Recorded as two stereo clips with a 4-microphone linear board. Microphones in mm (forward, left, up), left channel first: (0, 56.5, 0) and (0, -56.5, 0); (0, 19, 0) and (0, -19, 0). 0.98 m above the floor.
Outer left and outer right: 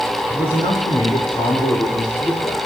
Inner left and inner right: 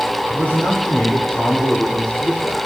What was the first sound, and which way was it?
A man speaking, 50° left (ahead or behind).